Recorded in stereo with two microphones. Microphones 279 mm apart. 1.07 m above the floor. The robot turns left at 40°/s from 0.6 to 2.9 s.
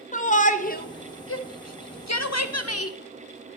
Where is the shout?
30° left (ahead or behind), 0.7 m; by 3.0 s 55° left (ahead or behind), 0.7 m.